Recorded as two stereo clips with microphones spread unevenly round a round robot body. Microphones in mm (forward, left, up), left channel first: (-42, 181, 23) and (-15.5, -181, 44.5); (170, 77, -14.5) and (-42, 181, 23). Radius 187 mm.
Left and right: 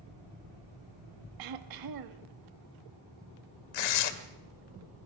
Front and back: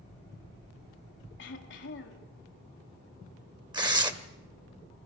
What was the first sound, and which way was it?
Throat clearing, 65° right.